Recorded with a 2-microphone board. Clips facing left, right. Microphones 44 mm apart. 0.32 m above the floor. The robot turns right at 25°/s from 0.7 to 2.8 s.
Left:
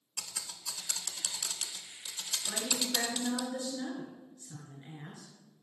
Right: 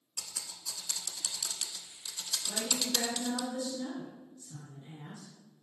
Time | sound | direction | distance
0.2 | typing on a keyboard | 65° left (ahead or behind) | 0.6 m
2.5 | a woman speaking | 35° left (ahead or behind) | 1.7 m